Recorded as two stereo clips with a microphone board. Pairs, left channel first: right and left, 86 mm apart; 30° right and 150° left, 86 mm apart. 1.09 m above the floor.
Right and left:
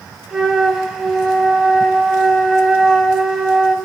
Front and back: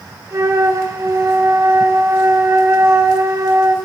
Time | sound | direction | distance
0.3 | a flute | 175° left | 1.2 m